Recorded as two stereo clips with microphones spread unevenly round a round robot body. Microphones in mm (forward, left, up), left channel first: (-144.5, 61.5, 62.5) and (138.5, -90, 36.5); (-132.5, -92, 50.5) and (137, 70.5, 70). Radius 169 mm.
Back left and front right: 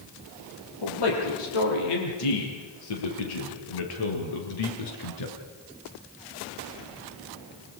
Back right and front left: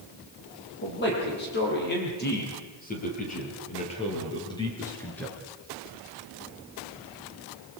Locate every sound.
0.8 s a man speaking: 155° left, 10 m; by 5.4 s 125° left, 4 m